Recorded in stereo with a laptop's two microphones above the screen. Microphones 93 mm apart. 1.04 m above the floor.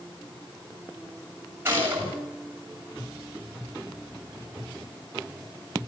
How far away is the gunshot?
About 7.5 m.